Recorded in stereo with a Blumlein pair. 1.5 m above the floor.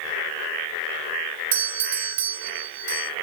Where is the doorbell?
60° right, 0.8 m.